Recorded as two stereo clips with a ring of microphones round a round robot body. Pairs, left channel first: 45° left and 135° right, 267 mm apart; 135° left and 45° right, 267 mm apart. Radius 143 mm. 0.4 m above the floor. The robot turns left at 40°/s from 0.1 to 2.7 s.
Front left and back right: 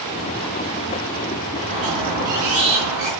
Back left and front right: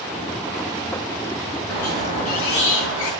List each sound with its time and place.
1.7 s a squeak: 140° right, 4.5 m; by 3.1 s straight behind, 4.5 m